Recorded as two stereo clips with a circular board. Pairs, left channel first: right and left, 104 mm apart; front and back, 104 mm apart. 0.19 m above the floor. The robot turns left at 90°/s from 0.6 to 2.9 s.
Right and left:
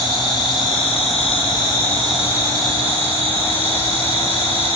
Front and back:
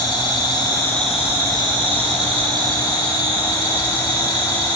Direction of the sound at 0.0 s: 50° right.